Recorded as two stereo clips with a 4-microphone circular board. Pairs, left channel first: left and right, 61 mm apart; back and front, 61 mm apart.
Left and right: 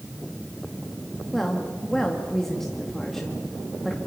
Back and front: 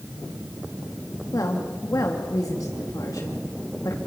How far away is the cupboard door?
I don't hear a cupboard door.